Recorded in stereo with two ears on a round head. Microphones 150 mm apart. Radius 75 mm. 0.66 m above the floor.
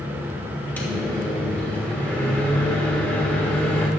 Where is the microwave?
10° left (ahead or behind), 3 m.